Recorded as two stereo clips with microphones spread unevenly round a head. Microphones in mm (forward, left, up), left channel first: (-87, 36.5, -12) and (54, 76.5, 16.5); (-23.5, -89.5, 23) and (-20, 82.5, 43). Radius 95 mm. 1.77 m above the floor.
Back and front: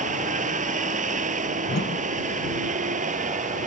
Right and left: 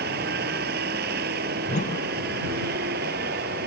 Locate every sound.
0.0 s a vehicle: 50° left
1.7 s a whoosh: 140° right